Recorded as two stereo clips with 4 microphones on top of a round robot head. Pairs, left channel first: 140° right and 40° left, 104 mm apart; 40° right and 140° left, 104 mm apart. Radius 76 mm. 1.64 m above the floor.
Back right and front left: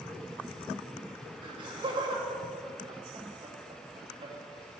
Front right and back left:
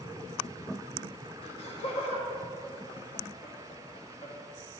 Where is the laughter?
5° right, 1.5 m.